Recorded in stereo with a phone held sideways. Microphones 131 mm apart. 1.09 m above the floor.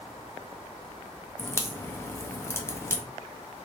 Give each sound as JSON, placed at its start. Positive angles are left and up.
{"t": 1.4, "sound": "a crack", "side_deg": 20, "distance_m": 0.5}